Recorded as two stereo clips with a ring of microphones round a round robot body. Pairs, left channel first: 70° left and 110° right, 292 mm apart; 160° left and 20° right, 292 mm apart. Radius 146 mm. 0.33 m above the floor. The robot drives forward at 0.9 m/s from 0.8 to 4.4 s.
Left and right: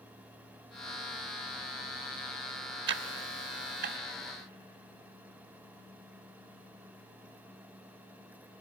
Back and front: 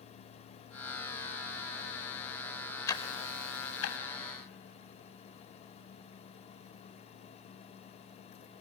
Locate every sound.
2.9 s ticking: 125° right, 0.6 m; by 4.0 s 165° right, 1.3 m